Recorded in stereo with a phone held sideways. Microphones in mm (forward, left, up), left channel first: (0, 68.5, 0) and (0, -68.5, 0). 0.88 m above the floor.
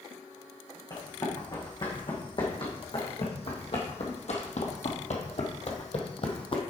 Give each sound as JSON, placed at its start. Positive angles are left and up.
{"t": 0.9, "sound": "running footsteps", "side_deg": 35, "distance_m": 3.0}